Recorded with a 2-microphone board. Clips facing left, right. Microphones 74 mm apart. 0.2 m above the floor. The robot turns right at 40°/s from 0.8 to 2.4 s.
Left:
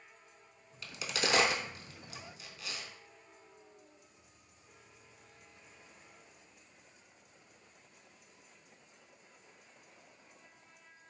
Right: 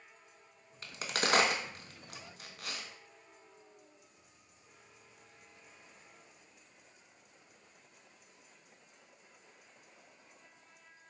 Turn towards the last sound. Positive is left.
turn(degrees=-55)  # may be behind; listen again after turning